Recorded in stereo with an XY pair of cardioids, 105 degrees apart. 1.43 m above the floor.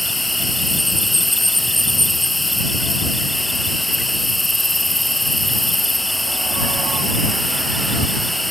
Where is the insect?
5° left.